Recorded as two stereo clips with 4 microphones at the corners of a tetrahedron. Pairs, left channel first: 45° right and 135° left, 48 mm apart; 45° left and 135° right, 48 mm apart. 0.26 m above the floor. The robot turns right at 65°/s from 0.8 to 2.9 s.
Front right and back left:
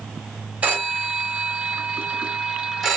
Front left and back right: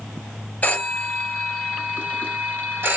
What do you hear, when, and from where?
0.6 s a phone ringing: 85° left, 1.1 m; by 3.0 s 135° right, 1.1 m